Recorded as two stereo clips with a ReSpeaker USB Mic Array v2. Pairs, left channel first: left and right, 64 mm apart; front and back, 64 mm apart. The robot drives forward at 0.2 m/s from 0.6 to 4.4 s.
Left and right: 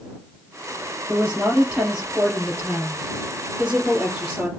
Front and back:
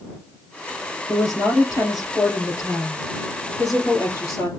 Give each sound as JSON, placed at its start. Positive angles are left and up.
{"t": 1.1, "sound": "a woman speaking", "azimuth_deg": -20, "distance_m": 4.0}